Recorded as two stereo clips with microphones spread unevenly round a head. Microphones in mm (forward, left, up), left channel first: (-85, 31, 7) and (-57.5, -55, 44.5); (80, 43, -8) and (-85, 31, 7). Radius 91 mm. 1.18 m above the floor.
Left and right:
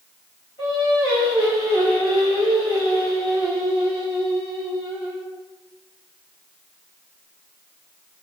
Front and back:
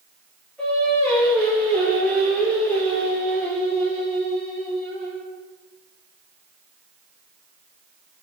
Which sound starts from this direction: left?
Singing, at 0.6 s.